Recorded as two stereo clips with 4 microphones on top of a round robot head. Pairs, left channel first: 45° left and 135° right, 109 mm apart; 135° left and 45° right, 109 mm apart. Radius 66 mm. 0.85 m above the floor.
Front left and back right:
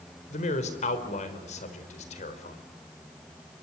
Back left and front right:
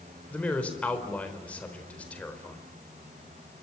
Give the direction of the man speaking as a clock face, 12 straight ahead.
10 o'clock.